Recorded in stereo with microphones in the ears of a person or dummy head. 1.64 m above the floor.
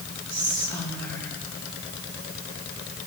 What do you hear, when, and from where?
0.3 s whispering: 15° left (ahead or behind), 2 m